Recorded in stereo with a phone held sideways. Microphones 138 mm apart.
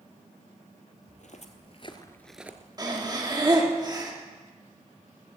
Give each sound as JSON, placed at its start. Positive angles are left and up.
{"t": 1.1, "sound": "footsteps", "side_deg": 65, "distance_m": 1.7}
{"t": 2.8, "sound": "breathing", "side_deg": -30, "distance_m": 1.7}